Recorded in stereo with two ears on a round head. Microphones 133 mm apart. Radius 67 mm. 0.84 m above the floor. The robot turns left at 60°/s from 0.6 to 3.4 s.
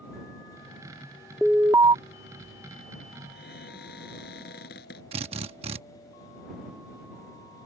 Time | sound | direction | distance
1.4 | an alarm | straight ahead | ?
3.3 | a cupboard door | 75° left (ahead or behind) | ?
5.1 | a drill | 40° right (ahead or behind) | ?